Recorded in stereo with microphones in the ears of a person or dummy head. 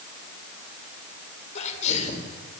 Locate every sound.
1.6 s a sneeze: 40° left (ahead or behind), 4.5 m